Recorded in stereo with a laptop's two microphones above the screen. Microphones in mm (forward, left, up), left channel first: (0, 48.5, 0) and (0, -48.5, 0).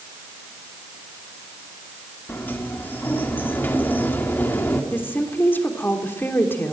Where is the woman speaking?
20° left (ahead or behind), 3 m.